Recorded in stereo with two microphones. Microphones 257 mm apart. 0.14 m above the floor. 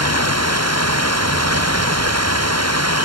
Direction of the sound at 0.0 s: 75° right (ahead or behind).